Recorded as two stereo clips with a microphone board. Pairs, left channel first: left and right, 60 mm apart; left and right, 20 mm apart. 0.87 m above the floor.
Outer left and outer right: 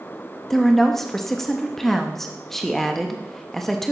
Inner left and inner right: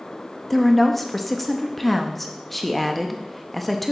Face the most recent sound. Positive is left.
turn(degrees=5)  # may be behind; listen again after turning